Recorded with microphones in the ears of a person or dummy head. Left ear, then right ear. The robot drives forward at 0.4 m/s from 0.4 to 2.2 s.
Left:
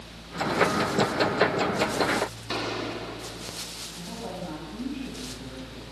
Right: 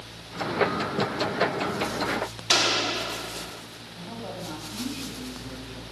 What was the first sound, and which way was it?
A gunshot, 60° right (ahead or behind).